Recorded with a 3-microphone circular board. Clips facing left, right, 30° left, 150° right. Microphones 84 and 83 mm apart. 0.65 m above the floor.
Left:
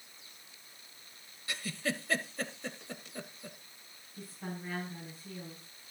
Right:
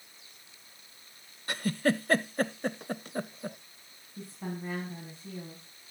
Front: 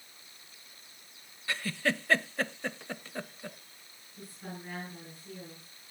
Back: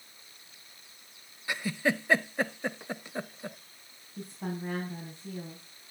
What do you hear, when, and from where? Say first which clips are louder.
1.5 s a giggle: right 9 dB, back 2 dB; 80° right, 0.5 m
4.2 s a woman speaking: right 4 dB, back 7 dB; 155° right, 4.5 m